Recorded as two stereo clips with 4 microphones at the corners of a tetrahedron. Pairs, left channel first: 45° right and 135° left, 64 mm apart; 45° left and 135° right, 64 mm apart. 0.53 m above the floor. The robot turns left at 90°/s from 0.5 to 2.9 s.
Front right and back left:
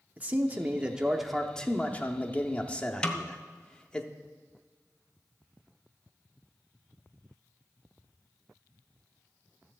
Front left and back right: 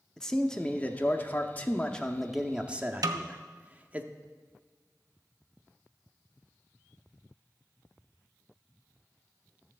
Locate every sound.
0.2 s a man speaking: 115° left, 0.7 m; by 4.0 s 100° right, 0.7 m
3.0 s a snare drum: 120° right, 0.6 m